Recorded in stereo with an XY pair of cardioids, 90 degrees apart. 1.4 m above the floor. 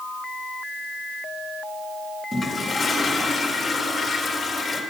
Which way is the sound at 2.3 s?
25° left.